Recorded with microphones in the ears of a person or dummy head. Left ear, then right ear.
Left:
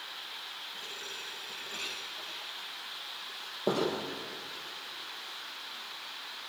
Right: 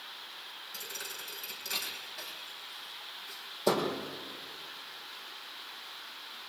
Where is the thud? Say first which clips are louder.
Left 1 dB; 70° right (ahead or behind), 4.5 m.